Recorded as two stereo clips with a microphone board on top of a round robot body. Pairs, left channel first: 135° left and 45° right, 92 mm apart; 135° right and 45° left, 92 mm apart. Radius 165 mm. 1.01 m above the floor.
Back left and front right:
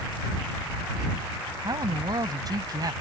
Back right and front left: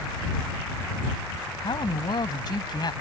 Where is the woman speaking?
95° right.